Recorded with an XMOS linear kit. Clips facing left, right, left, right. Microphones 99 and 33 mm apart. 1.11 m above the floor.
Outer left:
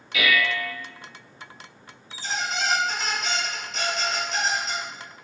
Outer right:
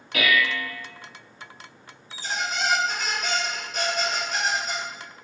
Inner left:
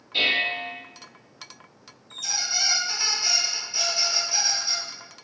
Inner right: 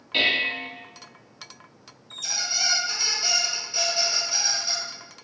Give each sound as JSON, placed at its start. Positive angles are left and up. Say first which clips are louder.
{"t": 0.1, "sound": "dishes clattering", "louder": "even, even", "side_deg": -45, "distance_m": 0.8}
{"t": 2.1, "sound": "a squeak", "louder": "even, even", "side_deg": -5, "distance_m": 1.3}